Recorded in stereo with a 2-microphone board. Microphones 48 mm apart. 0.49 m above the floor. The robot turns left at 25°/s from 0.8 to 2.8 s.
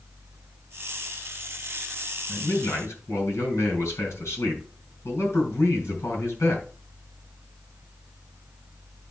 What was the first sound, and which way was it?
A man speaking, 80° left.